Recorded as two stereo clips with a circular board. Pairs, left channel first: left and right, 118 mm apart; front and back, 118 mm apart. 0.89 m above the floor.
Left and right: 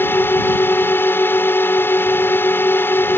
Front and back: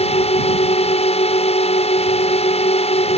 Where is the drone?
20° left.